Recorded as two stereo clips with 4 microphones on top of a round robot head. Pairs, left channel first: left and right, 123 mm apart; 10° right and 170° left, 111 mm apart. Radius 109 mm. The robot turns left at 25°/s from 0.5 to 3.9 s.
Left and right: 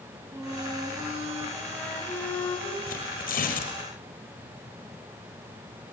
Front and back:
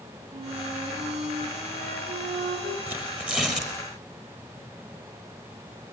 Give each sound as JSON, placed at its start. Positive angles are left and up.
{"t": 0.3, "sound": "a flute", "azimuth_deg": -145, "distance_m": 4.0}
{"t": 2.9, "sound": "tearing paper", "azimuth_deg": 100, "distance_m": 6.0}